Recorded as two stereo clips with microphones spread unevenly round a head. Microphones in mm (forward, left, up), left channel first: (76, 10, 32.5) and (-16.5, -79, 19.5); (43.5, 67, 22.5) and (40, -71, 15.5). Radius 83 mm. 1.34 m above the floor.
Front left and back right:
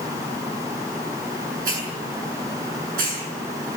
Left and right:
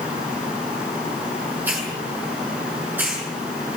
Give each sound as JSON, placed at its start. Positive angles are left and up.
{"t": 1.6, "sound": "a hiss", "azimuth_deg": -170, "distance_m": 7.0}